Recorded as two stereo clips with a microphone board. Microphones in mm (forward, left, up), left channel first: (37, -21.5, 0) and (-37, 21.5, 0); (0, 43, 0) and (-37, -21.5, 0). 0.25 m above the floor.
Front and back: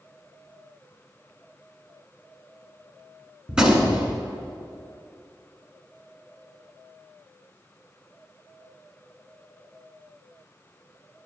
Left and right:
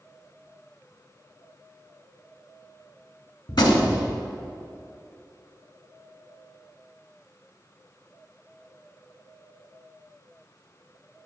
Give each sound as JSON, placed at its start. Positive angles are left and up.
{"t": 3.5, "sound": "a gunshot", "azimuth_deg": 70, "distance_m": 1.4}